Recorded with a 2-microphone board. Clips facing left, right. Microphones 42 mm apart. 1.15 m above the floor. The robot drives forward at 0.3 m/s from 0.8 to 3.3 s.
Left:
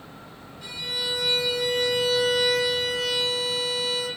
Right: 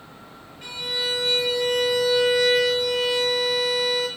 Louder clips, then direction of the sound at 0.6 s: Right 3 dB; 45° right (ahead or behind).